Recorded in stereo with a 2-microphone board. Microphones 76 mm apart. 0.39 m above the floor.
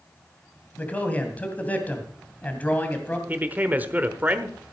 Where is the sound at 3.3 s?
25° right (ahead or behind), 1.1 m.